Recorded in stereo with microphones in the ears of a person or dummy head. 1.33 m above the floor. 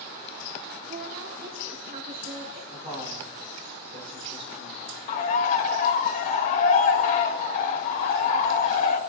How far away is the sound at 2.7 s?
About 4 m.